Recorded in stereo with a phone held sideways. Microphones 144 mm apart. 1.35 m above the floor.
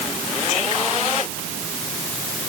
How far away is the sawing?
No sawing in this recording.